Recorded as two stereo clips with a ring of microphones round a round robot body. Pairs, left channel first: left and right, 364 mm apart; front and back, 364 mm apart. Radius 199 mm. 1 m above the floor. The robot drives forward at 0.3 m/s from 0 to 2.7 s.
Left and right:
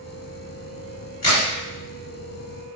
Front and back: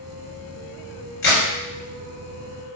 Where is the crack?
35° left, 1.4 m.